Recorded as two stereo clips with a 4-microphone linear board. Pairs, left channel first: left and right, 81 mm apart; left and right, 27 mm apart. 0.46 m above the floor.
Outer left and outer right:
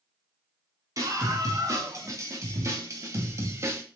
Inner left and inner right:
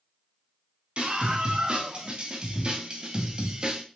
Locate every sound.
1.0 s a scream: 45° right (ahead or behind), 4 m; by 3.8 s 35° right (ahead or behind), 2 m